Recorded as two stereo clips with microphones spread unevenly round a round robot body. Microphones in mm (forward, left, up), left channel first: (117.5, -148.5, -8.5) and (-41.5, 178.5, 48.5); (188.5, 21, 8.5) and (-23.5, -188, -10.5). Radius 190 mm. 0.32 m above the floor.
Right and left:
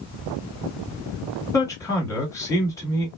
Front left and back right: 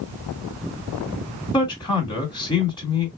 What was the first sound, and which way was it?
A man speaking, 15° right.